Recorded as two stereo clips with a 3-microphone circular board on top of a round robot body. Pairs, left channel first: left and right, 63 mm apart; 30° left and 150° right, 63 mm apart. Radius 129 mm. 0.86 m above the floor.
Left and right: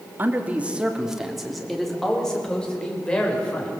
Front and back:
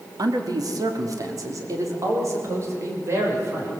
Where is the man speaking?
150° right, 2.5 m; by 3.7 s 160° left, 6 m.